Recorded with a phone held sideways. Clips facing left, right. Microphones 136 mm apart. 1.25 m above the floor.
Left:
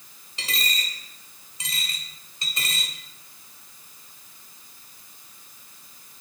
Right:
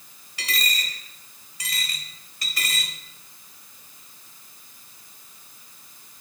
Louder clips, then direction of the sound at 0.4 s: Right 1 dB; 25° left (ahead or behind).